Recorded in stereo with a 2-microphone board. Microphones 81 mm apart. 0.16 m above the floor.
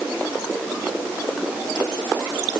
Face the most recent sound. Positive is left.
No sound to turn to.